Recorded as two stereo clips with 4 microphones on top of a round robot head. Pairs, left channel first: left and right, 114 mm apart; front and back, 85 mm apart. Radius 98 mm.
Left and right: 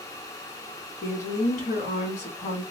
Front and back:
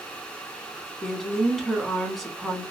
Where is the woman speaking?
85° left, 1.3 m.